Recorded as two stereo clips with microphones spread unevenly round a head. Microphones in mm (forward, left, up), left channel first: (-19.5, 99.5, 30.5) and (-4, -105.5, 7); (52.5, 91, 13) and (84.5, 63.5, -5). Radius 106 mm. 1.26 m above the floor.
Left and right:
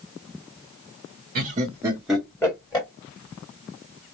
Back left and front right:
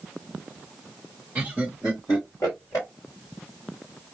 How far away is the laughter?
About 0.7 m.